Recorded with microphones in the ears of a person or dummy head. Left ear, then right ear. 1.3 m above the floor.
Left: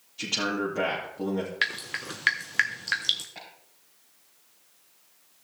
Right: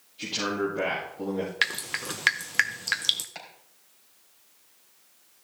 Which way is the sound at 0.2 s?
50° left (ahead or behind).